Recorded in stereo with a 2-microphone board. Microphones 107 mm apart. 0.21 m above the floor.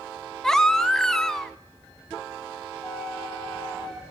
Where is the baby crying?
5° left (ahead or behind), 0.5 m.